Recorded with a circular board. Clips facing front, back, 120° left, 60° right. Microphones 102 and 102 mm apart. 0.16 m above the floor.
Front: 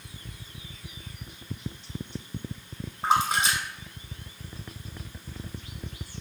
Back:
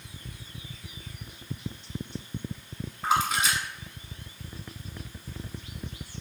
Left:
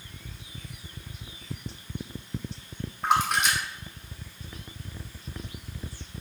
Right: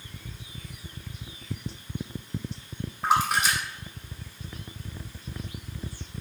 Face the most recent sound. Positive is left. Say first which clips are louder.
# front 2 dB, right 1 dB
turn(degrees=25)